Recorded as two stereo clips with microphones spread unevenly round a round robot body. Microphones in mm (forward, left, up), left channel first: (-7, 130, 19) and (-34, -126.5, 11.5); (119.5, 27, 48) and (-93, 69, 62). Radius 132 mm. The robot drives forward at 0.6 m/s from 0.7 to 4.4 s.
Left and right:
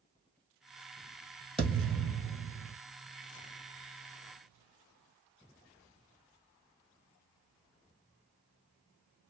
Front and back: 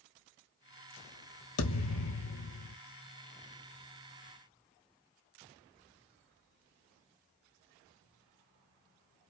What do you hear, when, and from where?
1.6 s a thud: 5° right, 1.7 m